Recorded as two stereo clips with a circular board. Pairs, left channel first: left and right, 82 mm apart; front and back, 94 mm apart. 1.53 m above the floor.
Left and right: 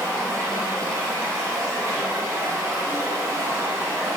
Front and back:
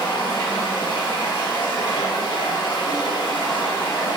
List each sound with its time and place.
0.0 s running water: 40° right, 1.5 m